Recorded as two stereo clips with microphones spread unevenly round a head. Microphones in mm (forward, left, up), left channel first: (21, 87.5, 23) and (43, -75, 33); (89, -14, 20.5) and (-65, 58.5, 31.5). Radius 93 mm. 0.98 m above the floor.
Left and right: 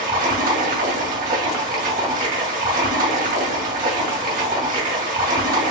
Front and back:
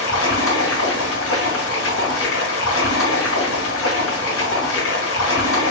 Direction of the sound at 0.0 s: 45° right.